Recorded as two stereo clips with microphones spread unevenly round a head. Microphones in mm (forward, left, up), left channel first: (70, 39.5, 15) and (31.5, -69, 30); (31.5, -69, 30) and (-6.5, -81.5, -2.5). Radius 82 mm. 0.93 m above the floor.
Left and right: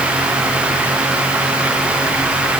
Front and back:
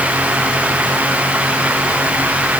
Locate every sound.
Only background noise.